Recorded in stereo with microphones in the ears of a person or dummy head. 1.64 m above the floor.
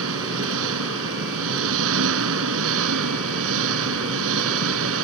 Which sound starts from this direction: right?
An engine running, at 0.0 s.